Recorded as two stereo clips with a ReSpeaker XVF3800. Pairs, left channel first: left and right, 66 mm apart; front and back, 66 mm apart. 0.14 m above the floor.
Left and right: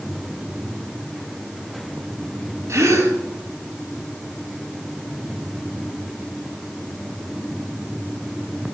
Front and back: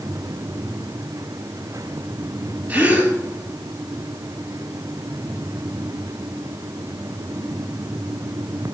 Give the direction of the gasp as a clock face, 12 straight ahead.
4 o'clock.